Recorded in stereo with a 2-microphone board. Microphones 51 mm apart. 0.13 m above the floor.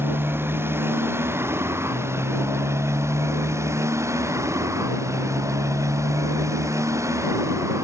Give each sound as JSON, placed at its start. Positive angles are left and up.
{"t": 0.0, "sound": "a motorcycle", "side_deg": -50}